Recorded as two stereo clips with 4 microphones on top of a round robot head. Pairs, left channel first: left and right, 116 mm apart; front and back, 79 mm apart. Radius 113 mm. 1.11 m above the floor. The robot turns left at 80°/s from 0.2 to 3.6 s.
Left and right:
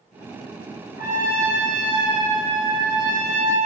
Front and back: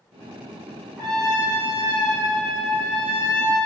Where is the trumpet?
85° left, 1.3 m; by 3.7 s 130° right, 1.3 m.